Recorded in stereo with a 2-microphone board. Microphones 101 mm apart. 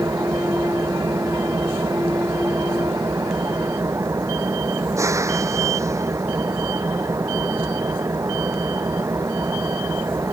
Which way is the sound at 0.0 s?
30° right (ahead or behind).